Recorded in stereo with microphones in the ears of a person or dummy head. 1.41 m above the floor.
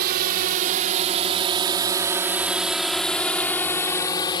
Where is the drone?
55° right (ahead or behind); by 4.4 s 25° left (ahead or behind).